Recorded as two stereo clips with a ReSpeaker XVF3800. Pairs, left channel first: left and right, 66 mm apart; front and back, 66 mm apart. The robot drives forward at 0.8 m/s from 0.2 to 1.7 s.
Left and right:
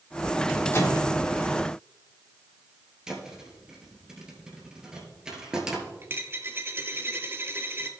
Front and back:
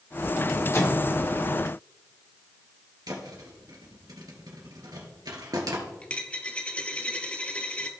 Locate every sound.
0.7 s a microwave: 40° left, 2.0 m; by 1.1 s 45° left, 1.8 m
3.1 s a thud: 170° right, 2.5 m
6.0 s a dropped coin: 60° right, 0.9 m